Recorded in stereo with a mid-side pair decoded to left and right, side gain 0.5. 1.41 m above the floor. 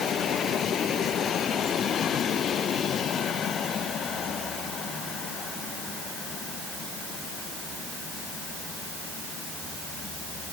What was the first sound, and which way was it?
Only background noise.